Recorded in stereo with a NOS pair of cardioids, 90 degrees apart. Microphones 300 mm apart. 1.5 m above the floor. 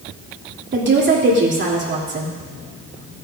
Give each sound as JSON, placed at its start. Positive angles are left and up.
{"t": 0.7, "sound": "a woman speaking", "azimuth_deg": -35, "distance_m": 3.0}